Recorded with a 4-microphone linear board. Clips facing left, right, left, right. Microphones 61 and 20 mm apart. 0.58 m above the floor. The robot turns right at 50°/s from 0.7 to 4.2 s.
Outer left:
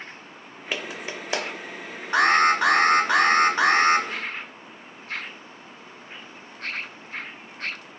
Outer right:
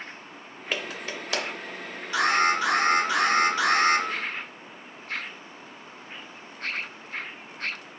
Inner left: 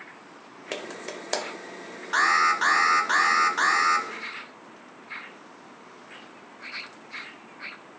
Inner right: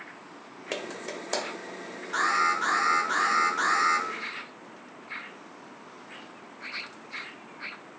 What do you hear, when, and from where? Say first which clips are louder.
0.7 s a clap: outer left 1 dB, even; 5° left (ahead or behind), 0.7 m; by 1.4 s 25° left (ahead or behind), 0.7 m
2.1 s an alarm: outer left 4 dB, inner left 4 dB; 60° left, 0.7 m; by 4.1 s 155° left, 0.7 m